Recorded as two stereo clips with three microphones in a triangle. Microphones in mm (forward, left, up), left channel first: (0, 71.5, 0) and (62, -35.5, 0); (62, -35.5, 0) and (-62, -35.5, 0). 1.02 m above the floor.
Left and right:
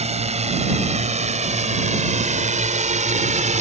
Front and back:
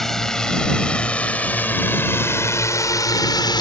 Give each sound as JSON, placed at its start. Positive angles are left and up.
{"t": 0.0, "sound": "a drone", "azimuth_deg": -85}